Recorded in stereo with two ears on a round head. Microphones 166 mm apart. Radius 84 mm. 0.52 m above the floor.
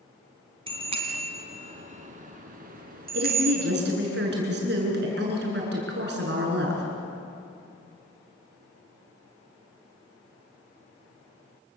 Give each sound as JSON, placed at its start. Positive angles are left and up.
{"t": 0.7, "sound": "a bicycle bell", "side_deg": -30, "distance_m": 3.5}
{"t": 3.1, "sound": "a woman speaking", "side_deg": -60, "distance_m": 8.0}